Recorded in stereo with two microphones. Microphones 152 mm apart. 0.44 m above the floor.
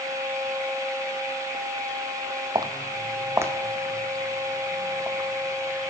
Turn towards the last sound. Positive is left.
turn(degrees=-5)  # may be behind; listen again after turning